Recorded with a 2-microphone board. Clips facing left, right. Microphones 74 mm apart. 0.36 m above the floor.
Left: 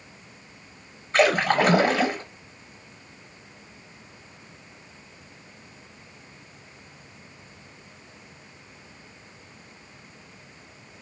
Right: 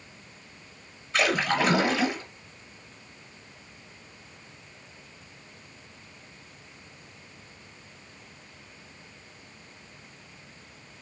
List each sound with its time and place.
1.1 s a splash: 45° left (ahead or behind), 0.6 m